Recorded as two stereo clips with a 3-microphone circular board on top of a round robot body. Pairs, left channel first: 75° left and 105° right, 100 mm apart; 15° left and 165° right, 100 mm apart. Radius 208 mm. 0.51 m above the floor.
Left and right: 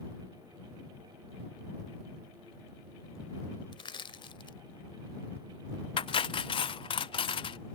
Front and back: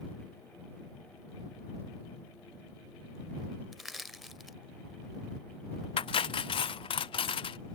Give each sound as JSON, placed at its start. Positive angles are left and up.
{"t": 3.7, "sound": "crushing", "azimuth_deg": 105}
{"t": 6.0, "sound": "cutlery clinking", "azimuth_deg": 45}